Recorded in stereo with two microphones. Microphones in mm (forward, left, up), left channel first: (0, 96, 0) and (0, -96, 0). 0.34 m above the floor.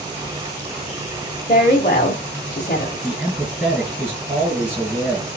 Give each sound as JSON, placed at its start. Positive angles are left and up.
{"t": 1.5, "sound": "a woman speaking", "side_deg": 40, "distance_m": 1.1}
{"t": 3.0, "sound": "a man speaking", "side_deg": -5, "distance_m": 2.5}